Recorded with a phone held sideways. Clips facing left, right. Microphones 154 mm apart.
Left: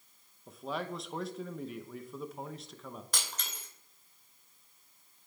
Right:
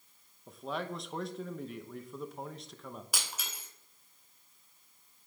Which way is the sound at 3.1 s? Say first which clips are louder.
Even; 10° right (ahead or behind).